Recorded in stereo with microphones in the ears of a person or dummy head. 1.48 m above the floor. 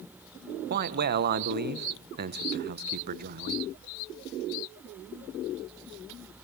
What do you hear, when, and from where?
0.7 s a man speaking: 55° right (ahead or behind), 1.0 m